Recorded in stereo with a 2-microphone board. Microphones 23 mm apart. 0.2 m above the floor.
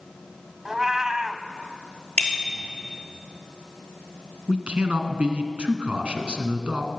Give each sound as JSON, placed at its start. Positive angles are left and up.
{"t": 0.7, "sound": "a cat meowing", "side_deg": -15, "distance_m": 0.6}
{"t": 2.2, "sound": "a bicycle bell", "side_deg": 65, "distance_m": 3.0}
{"t": 4.5, "sound": "a man speaking", "side_deg": -45, "distance_m": 1.7}